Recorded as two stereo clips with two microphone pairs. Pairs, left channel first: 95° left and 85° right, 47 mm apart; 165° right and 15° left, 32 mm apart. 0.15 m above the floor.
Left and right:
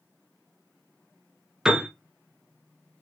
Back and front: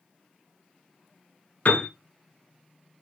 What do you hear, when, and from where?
1.6 s a piano: 160° right, 1.2 m